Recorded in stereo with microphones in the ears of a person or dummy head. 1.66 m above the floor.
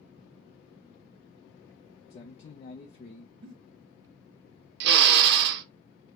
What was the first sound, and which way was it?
A man speaking, 40° left (ahead or behind).